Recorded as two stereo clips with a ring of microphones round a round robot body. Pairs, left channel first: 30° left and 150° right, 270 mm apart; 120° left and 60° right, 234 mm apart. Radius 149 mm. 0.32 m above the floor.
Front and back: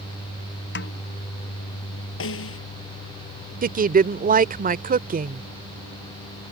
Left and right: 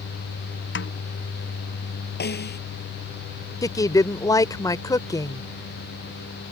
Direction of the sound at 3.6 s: 175° right.